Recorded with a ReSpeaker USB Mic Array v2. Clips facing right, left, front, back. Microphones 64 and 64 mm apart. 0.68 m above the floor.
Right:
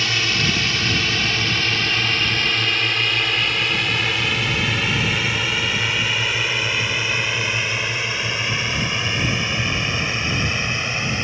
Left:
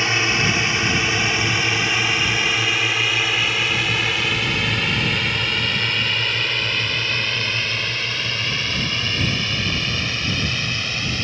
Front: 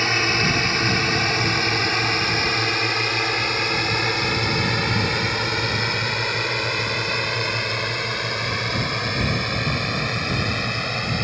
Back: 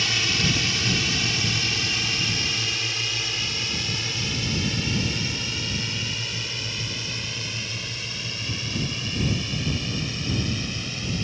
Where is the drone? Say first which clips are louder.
Left 2 dB, front 5 dB; 30° left; by 11.2 s 25° right.